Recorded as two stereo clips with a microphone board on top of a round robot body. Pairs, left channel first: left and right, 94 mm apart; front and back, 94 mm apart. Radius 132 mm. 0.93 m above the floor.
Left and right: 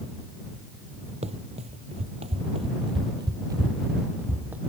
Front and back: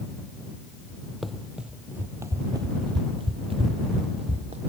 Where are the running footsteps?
90° right; by 4.6 s 165° right.